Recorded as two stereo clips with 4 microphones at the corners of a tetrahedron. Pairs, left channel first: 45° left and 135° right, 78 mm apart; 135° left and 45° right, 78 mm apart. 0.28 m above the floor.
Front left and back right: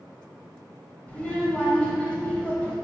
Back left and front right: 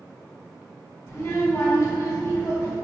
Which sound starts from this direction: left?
A child speaking, at 1.1 s.